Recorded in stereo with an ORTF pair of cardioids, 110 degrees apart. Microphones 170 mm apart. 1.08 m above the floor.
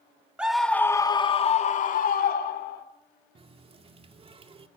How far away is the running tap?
About 2.0 m.